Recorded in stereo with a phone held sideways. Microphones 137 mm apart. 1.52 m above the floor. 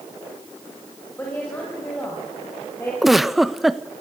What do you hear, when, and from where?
1.2 s a woman speaking: 15° left (ahead or behind), 6 m
3.0 s a giggle: centre (ahead or behind), 0.8 m